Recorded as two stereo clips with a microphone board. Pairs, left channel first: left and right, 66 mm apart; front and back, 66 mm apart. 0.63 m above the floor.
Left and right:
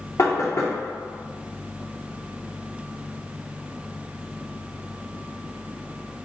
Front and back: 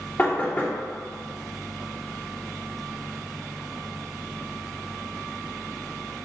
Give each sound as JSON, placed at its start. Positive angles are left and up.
{"t": 0.2, "sound": "knocking", "azimuth_deg": 60, "distance_m": 0.8}